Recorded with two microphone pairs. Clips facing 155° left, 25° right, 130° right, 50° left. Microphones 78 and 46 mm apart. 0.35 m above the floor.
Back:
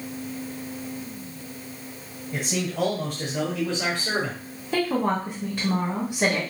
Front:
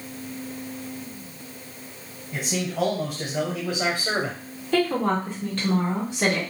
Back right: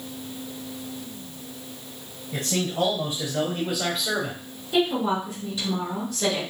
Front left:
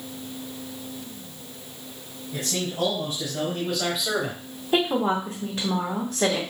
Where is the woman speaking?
80° left, 2 m.